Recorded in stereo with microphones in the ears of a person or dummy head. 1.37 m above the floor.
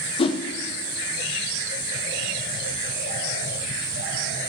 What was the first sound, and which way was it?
A whoosh, 20° left (ahead or behind).